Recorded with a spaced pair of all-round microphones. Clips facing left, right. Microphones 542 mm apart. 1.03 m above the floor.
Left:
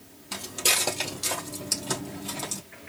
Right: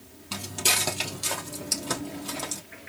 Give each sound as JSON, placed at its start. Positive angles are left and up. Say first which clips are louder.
{"t": 0.3, "sound": "footsteps", "louder": "even", "side_deg": -15, "distance_m": 1.8}